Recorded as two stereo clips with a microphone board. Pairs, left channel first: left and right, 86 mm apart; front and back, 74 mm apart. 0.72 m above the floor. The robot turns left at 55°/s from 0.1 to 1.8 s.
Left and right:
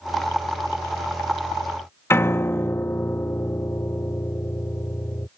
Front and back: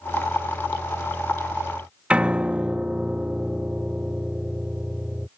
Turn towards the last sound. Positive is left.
turn(degrees=120)